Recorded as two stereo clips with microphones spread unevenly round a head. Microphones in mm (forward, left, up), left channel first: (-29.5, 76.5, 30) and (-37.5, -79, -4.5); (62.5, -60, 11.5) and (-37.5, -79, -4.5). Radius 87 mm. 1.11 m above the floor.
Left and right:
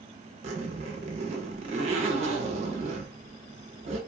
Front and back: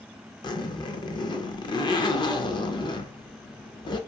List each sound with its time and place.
0.4 s a zipper: 35° right, 0.5 m